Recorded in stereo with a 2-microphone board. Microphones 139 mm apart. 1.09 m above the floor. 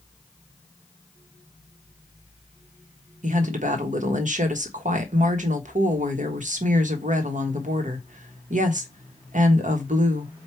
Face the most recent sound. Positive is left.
turn(degrees=-65)  # may be behind; listen again after turning